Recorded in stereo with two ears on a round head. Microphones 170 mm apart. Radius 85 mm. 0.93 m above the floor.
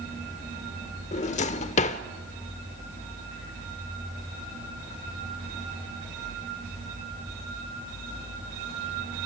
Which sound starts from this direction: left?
A drawer, at 1.1 s.